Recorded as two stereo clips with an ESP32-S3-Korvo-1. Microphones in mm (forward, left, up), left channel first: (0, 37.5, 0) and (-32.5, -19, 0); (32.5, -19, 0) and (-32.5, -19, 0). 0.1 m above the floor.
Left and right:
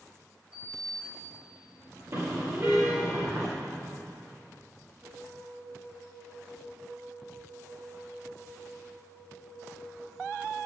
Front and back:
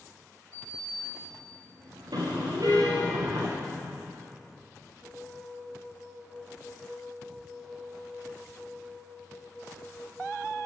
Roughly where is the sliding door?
Behind.